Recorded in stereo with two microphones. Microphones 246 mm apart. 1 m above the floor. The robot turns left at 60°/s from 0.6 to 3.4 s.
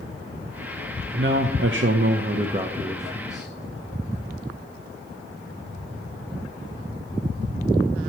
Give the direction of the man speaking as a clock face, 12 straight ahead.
2 o'clock.